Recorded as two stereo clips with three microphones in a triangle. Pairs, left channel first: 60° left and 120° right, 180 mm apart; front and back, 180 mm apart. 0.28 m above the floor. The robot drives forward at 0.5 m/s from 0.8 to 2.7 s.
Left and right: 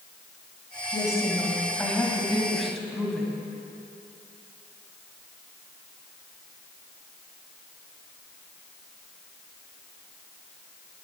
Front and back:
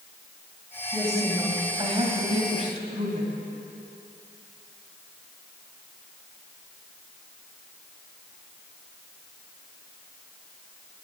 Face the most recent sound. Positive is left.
turn(degrees=150)